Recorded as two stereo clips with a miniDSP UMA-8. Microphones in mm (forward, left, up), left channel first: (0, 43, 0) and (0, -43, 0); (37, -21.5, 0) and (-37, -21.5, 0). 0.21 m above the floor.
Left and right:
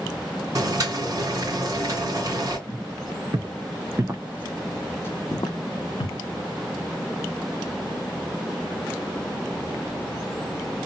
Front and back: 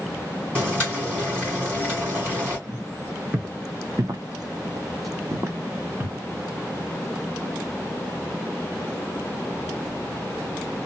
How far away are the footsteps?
About 1.3 m.